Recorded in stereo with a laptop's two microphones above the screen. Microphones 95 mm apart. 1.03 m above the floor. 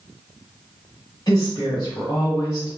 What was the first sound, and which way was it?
A woman speaking, 40° left (ahead or behind).